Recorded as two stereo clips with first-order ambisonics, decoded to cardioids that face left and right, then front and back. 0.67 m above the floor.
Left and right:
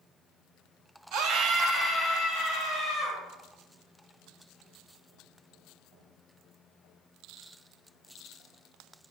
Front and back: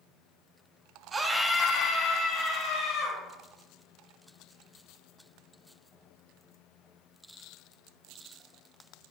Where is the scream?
110° right, 0.9 m; by 3.2 s 20° left, 2.5 m.